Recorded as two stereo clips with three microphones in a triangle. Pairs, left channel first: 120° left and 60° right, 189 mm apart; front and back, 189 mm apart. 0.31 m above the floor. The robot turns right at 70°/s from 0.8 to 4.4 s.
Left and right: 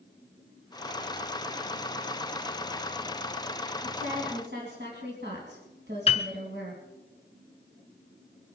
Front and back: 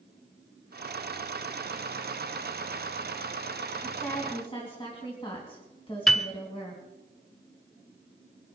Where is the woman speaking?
100° right, 3 m; by 6.8 s 60° right, 3 m.